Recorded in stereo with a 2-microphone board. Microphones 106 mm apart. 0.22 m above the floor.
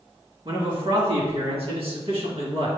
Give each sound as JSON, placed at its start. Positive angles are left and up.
{"t": 0.5, "sound": "a man speaking", "side_deg": -55, "distance_m": 2.5}